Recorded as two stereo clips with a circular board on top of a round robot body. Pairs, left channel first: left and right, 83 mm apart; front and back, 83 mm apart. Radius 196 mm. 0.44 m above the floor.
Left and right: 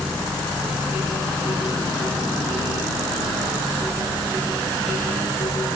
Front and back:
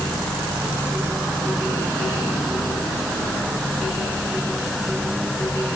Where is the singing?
I don't hear singing.